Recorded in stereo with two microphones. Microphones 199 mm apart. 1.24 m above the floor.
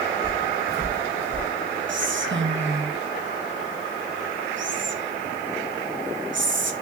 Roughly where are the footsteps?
Right.